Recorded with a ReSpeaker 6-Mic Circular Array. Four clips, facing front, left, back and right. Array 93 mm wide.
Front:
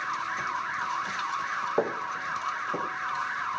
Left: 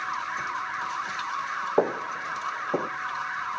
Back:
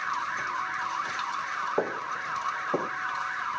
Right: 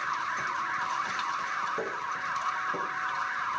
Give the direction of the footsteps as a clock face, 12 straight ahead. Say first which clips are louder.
Left 8 dB, front 3 dB; 9 o'clock.